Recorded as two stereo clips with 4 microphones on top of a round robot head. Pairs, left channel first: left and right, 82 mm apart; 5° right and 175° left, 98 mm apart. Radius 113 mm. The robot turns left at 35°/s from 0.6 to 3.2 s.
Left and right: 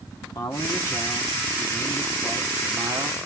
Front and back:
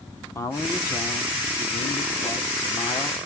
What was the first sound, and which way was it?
A man speaking, 50° left.